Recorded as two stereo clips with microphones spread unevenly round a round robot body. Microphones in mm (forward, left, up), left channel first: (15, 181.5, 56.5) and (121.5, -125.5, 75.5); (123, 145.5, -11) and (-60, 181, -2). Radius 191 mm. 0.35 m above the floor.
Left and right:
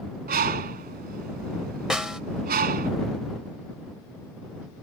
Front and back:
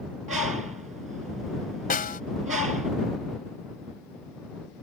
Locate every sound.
0.3 s a bird: 140° right
1.9 s a snare drum: 20° left